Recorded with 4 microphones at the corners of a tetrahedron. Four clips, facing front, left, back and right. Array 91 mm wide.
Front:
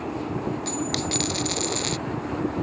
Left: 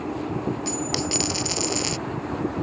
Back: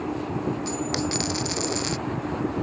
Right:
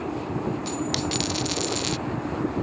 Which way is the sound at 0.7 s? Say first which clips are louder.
Even, back 1 dB; 65° left.